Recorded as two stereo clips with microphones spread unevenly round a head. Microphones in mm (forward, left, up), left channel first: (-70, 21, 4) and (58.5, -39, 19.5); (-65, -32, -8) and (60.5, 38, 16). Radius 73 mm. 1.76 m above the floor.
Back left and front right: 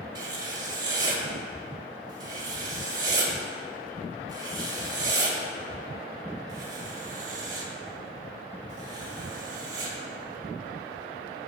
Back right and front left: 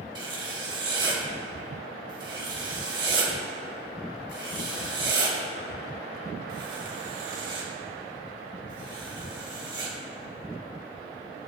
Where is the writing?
10° left, 1.8 m.